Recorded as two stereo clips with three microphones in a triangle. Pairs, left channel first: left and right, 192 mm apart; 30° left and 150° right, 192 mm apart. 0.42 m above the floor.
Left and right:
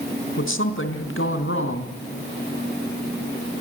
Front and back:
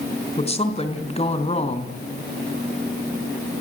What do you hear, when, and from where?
0.4 s a woman speaking: 90° left, 4 m